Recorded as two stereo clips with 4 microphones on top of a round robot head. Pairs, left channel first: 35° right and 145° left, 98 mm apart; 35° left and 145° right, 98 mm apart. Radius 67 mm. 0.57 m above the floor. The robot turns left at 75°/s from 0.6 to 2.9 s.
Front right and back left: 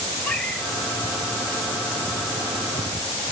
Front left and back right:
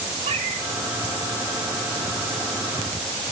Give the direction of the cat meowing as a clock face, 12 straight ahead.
4 o'clock.